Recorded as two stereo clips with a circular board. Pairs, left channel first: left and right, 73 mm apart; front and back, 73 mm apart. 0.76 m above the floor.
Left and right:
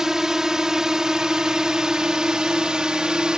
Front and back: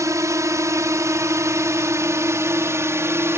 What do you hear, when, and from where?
0.0 s a drone: 170° right; by 3.4 s 160° right